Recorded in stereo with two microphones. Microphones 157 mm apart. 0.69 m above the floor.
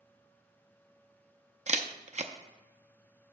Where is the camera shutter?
45° right (ahead or behind), 0.6 m.